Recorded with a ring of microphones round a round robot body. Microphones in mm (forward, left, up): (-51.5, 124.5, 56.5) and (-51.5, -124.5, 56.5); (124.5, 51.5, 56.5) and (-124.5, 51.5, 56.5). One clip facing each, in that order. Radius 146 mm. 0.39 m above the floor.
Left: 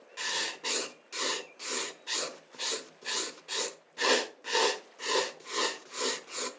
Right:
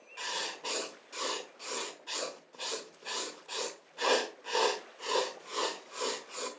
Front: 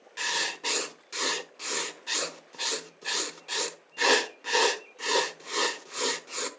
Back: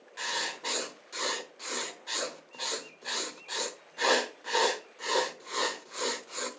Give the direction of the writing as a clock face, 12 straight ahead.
11 o'clock.